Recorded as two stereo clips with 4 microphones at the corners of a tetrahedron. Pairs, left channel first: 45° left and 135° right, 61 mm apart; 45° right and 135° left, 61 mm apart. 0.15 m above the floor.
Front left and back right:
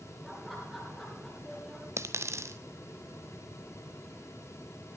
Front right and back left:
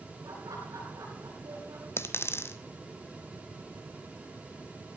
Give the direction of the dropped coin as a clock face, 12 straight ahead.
3 o'clock.